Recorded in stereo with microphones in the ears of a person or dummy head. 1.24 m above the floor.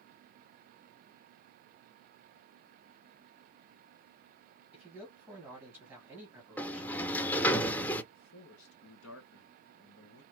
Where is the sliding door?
10° left (ahead or behind), 0.5 m.